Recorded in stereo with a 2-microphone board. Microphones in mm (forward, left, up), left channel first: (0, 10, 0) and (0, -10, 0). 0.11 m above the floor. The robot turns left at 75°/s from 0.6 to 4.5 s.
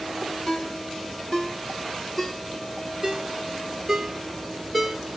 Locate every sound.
0.5 s a ringtone: 50° left (ahead or behind), 0.9 m; by 5.0 s centre (ahead or behind), 0.9 m